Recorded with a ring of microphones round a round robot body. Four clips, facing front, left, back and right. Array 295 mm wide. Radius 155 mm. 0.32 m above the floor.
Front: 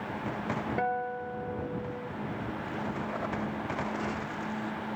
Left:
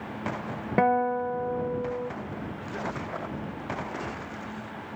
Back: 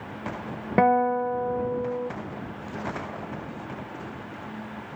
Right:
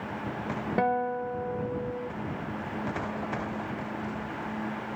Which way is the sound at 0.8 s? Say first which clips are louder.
Left 5 dB, back 15 dB; 165° left.